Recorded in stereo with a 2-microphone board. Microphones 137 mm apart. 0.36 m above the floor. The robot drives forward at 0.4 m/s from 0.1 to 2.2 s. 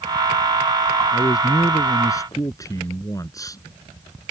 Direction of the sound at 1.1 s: 30° left (ahead or behind).